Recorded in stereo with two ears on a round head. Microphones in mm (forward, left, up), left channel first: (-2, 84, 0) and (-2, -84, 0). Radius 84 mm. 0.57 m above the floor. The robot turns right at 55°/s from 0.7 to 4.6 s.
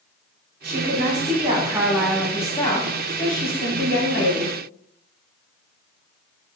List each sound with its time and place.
0.6 s a woman speaking: 75° right, 1.2 m; by 4.5 s 135° left, 1.2 m